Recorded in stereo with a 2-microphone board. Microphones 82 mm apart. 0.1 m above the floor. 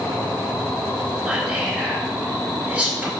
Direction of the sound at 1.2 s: 20° right (ahead or behind).